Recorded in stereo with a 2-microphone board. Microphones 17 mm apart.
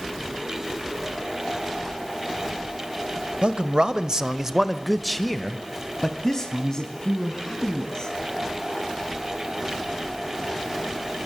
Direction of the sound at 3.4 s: 60° right (ahead or behind).